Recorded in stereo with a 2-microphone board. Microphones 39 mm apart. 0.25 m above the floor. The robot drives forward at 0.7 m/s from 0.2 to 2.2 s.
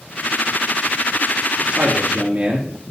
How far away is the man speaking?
About 4.5 m.